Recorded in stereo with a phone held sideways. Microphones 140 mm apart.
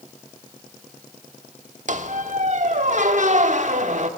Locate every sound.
1.9 s a squeak: 60° right (ahead or behind), 1.1 m